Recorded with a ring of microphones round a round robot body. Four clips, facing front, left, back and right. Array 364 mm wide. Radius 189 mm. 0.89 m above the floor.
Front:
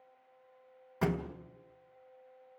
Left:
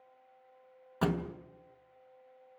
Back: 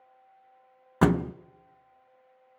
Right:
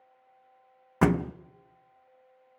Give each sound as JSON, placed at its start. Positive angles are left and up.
{"t": 1.0, "sound": "a thud", "azimuth_deg": -145, "distance_m": 0.6}